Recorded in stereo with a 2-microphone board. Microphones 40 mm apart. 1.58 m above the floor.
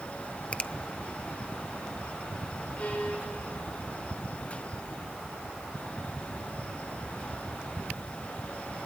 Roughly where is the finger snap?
Left.